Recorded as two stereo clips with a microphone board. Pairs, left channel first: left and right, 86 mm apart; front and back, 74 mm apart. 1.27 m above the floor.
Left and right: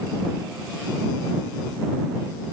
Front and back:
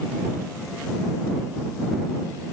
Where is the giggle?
No giggle in this recording.